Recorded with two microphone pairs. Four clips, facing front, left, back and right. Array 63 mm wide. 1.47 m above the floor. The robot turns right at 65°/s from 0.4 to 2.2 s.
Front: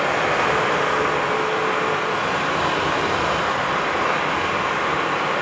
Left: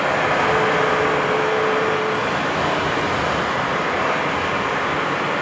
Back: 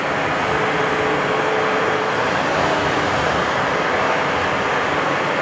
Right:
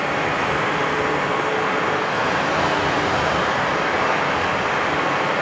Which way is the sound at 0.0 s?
70° left.